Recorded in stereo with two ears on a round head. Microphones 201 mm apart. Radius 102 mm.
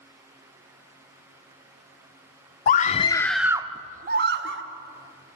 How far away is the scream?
About 0.8 m.